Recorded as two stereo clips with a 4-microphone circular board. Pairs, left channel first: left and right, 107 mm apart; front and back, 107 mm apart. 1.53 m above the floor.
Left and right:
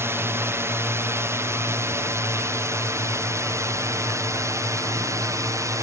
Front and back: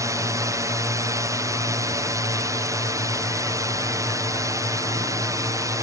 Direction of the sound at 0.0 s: 140° right.